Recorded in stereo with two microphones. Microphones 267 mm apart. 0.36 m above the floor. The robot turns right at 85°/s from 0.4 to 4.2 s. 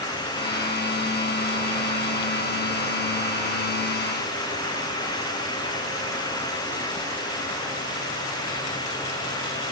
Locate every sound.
Only background noise.